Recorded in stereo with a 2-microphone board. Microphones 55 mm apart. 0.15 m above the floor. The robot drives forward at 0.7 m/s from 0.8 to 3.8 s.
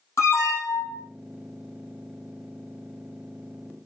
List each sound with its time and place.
0.2 s an alarm: 60° left (ahead or behind), 3 m; by 1.1 s 55° left (ahead or behind), 3 m